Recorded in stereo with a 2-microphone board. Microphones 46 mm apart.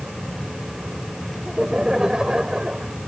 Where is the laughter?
10° right (ahead or behind); by 2.9 s 20° right (ahead or behind).